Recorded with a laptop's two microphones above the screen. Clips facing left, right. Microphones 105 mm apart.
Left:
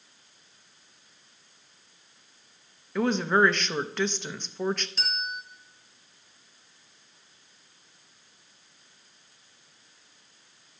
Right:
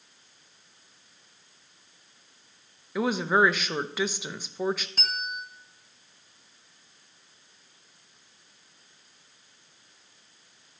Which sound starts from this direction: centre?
A woman speaking, at 3.0 s.